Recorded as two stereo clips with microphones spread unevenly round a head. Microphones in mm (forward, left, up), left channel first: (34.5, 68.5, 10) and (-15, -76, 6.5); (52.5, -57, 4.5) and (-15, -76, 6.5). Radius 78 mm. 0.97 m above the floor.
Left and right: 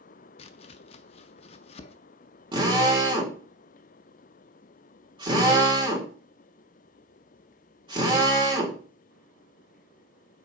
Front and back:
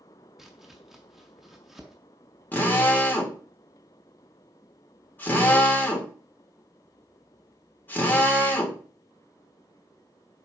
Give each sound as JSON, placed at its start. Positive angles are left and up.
{"t": 0.4, "sound": "chopping", "azimuth_deg": 110, "distance_m": 0.5}
{"t": 2.5, "sound": "a drill", "azimuth_deg": -50, "distance_m": 3.0}